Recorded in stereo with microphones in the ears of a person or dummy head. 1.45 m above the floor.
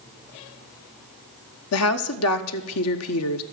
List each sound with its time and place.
1.7 s a woman speaking: 70° left (ahead or behind), 0.8 m